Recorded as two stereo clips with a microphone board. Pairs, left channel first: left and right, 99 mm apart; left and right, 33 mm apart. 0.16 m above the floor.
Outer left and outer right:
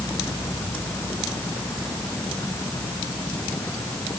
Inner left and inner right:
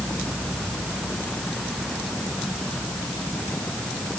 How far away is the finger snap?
I don't hear a finger snap.